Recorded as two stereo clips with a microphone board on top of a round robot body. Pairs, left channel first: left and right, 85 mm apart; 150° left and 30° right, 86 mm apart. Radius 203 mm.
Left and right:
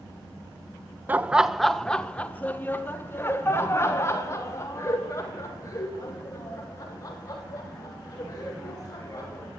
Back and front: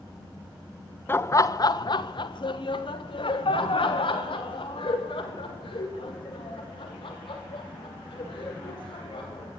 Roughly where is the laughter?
Behind right.